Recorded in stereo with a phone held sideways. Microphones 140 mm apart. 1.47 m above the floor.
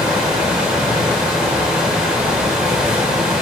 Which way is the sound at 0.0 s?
5° right (ahead or behind).